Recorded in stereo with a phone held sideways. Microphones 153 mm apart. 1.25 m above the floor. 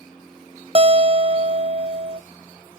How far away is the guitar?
About 0.6 m.